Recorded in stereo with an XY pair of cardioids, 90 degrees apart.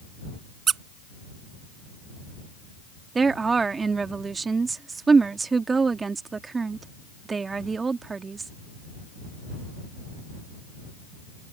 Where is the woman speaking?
35° right.